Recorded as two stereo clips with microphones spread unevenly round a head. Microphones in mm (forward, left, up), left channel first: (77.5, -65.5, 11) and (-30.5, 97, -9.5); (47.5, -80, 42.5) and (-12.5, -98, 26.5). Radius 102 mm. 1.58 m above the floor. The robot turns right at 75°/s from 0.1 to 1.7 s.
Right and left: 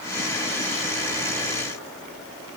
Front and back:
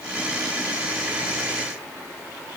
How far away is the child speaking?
I don't hear a child speaking.